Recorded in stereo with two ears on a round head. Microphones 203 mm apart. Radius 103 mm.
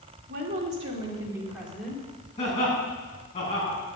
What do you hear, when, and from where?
0.3 s a woman speaking: 40° right (ahead or behind), 2.5 m; by 2.0 s 5° left (ahead or behind), 3 m
2.4 s laughter: 30° left (ahead or behind), 7 m